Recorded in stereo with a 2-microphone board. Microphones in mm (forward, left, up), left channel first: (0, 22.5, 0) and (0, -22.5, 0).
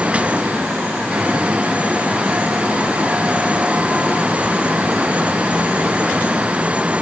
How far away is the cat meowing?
No cat meowing in this recording.